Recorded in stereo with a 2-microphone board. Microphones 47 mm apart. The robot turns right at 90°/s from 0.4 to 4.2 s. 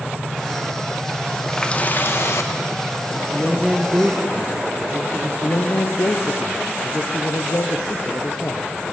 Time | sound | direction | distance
1.5 | a running tap | 5° left | 0.8 m
3.3 | a man speaking | 155° left | 1.2 m
5.4 | a man speaking | 70° left (ahead or behind) | 0.9 m